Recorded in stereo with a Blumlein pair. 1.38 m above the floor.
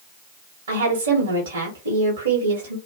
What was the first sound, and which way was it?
A woman speaking, 70° right.